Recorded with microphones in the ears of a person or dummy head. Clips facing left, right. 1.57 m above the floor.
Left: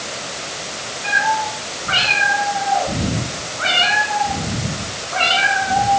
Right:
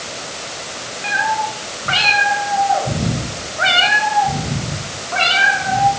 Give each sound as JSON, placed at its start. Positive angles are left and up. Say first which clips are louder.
{"t": 1.0, "sound": "a cat meowing", "louder": "even", "side_deg": -55, "distance_m": 3.5}